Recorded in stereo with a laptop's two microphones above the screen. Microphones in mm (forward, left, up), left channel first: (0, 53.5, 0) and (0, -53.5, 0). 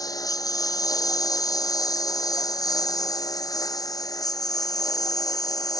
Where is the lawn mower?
30° left (ahead or behind).